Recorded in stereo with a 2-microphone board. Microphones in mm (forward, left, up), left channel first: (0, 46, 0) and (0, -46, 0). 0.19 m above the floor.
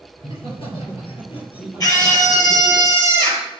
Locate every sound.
0.2 s laughter: 65° left (ahead or behind), 3.5 m; by 2.8 s 75° left (ahead or behind), 5.5 m
1.8 s a scream: 40° left (ahead or behind), 4 m